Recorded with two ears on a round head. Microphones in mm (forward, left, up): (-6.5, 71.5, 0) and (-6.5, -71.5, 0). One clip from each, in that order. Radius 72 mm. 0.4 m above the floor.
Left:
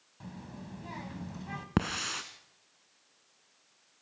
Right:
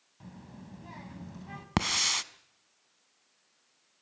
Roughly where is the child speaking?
Centre.